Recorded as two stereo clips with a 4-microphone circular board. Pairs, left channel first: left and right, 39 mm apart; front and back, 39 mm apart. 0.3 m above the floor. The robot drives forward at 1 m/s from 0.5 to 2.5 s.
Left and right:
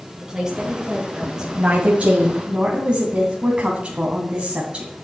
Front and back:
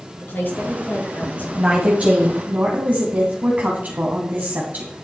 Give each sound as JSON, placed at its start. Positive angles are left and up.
{"t": 0.2, "sound": "a woman speaking", "azimuth_deg": -15, "distance_m": 3.5}
{"t": 1.6, "sound": "a woman speaking", "azimuth_deg": -125, "distance_m": 1.6}